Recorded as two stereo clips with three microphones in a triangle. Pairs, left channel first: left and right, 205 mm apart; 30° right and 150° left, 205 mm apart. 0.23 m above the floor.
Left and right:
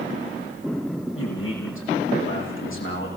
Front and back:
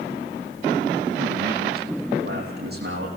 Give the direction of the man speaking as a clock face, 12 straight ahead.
8 o'clock.